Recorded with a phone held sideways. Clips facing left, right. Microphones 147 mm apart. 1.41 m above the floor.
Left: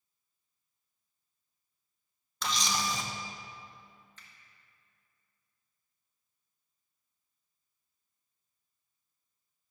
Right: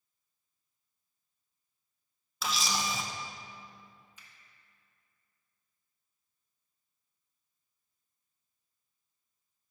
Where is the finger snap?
10° right (ahead or behind), 0.9 m.